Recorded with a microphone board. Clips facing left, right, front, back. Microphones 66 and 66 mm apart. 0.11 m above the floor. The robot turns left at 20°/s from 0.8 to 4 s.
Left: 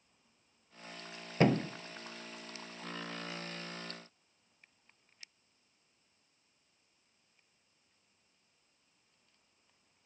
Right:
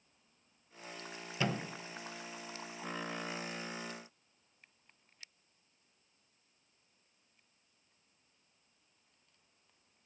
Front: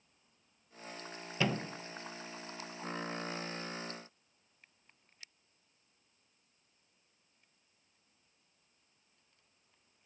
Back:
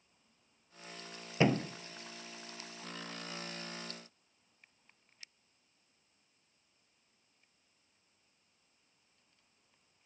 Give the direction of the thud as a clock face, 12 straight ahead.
8 o'clock.